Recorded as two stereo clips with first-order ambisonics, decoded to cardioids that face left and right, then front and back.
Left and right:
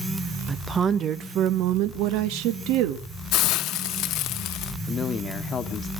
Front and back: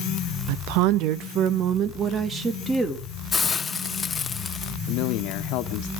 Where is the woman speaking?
170° right, 0.8 m; by 3.1 s 100° right, 1.3 m.